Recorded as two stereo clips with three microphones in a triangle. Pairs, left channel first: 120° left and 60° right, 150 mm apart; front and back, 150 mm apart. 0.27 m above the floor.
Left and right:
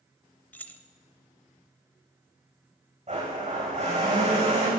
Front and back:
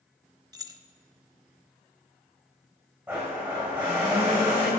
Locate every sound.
0.5 s keys jangling: 175° right, 0.6 m
3.1 s a blender: 100° right, 4 m